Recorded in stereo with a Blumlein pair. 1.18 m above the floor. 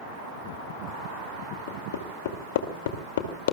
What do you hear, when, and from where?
1.7 s hammering: 55° left, 2.5 m